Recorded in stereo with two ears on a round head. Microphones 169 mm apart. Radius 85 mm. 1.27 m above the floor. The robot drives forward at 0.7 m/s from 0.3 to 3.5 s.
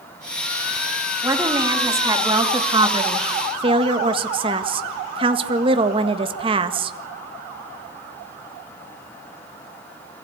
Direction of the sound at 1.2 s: 15° right (ahead or behind).